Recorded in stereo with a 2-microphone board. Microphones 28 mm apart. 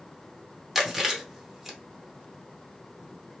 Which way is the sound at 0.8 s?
5° right (ahead or behind).